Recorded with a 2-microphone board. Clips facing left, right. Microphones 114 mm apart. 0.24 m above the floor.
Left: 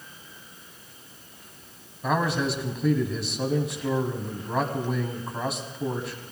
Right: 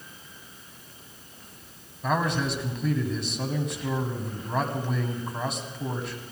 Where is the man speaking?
Centre (ahead or behind), 1.8 m.